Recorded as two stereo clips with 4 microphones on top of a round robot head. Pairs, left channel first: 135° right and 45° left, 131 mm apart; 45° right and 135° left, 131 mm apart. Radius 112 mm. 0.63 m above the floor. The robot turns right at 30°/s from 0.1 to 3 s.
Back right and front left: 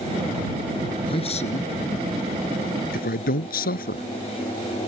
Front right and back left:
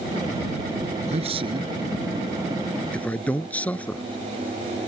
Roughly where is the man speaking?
Behind.